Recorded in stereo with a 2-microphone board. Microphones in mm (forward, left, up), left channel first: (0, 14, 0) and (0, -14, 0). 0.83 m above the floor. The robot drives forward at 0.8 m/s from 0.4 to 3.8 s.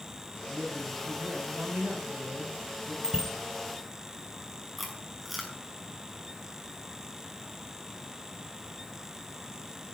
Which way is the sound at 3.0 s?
20° right (ahead or behind).